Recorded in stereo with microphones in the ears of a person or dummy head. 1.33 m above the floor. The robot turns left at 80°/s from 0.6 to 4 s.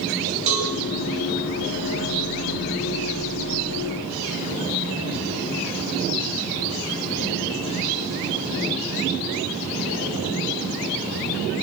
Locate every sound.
0.5 s a cowbell: 40° right (ahead or behind), 10 m; by 0.7 s 45° right (ahead or behind), 10 m